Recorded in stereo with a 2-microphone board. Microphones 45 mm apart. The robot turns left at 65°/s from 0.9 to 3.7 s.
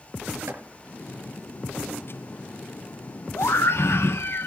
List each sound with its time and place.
0.5 s chopping: 70° right (ahead or behind), 6 m
3.4 s a scream: 85° left, 0.8 m; by 4.5 s 65° left (ahead or behind), 0.8 m